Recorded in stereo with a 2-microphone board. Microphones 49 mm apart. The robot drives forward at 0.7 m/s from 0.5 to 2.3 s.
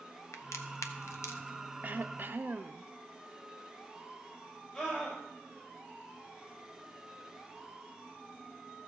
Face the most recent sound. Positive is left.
turn(degrees=30)  # may be behind; listen again after turning